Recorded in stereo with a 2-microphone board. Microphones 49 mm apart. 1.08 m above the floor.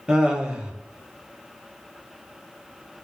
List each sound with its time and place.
0.1 s laughter: 15° right (ahead or behind), 0.8 m